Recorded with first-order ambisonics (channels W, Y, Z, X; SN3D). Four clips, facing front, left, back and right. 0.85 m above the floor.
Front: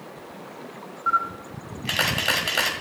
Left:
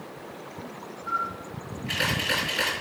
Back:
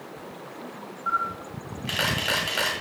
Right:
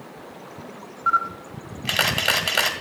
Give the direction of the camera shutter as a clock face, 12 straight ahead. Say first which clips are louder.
Right 8 dB, front 3 dB; 3 o'clock.